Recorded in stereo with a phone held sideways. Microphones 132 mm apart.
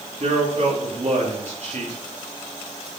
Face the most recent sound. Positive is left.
turn(degrees=-55)  # may be behind; listen again after turning